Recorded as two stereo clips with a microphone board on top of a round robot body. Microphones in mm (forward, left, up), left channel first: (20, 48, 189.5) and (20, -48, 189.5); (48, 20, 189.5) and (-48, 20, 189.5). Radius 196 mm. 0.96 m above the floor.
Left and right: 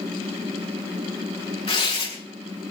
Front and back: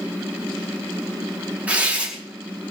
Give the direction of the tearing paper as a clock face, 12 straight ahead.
8 o'clock.